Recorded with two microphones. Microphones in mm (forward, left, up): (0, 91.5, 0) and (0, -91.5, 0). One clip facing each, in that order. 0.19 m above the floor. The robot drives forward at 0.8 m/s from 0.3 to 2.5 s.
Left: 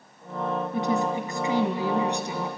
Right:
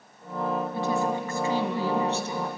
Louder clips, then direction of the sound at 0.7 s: Left 4 dB; 20° left (ahead or behind).